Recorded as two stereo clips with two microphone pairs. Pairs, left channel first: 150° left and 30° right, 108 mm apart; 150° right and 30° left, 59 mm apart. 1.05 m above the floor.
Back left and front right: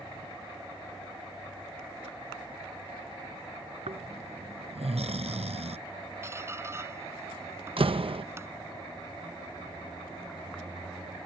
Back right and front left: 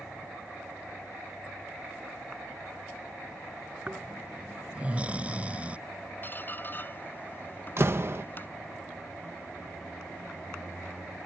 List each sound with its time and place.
3.9 s snoring: 35° right
6.2 s a squeak: 95° right
7.8 s a door slam: 10° right